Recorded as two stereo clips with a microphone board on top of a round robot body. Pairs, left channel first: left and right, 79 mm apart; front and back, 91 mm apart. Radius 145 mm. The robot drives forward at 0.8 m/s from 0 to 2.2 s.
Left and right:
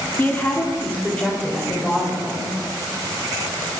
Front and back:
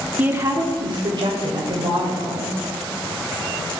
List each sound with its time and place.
0.2 s a woman speaking: 120° left, 1.0 m; by 2.5 s 170° left, 2 m